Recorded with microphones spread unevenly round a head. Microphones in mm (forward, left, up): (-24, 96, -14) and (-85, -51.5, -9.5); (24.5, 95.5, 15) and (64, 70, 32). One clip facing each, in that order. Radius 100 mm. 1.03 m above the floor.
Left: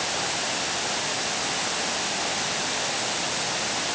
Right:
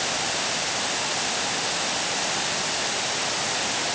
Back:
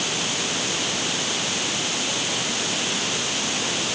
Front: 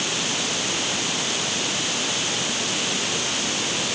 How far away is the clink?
I don't hear a clink.